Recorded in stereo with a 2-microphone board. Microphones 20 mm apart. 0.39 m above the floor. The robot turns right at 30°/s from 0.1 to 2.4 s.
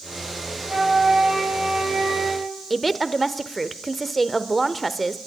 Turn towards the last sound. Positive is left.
turn(degrees=0)  # may be behind; listen again after turning